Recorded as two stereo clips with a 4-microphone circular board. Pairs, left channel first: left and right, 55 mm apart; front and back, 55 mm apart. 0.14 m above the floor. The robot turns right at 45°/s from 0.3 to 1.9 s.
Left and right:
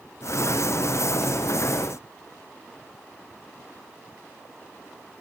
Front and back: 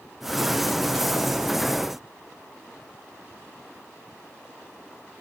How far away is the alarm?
I don't hear an alarm.